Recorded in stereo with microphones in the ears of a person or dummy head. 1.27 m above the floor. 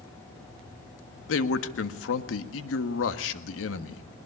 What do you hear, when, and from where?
1.3 s a man speaking: 80° left, 1.6 m